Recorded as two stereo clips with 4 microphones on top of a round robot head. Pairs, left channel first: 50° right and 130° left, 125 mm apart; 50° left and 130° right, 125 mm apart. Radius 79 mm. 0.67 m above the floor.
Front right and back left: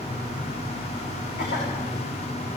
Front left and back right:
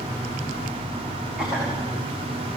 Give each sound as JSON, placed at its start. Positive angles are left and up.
{"t": 1.4, "sound": "a cough", "azimuth_deg": -45, "distance_m": 6.0}